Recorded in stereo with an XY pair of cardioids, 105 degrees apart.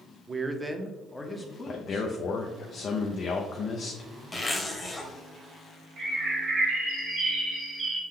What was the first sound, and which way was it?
A man speaking, 30° right.